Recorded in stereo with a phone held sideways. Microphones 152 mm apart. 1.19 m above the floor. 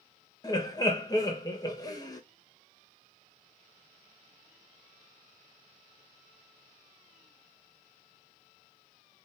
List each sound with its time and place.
0.4 s laughter: 25° left (ahead or behind), 1.1 m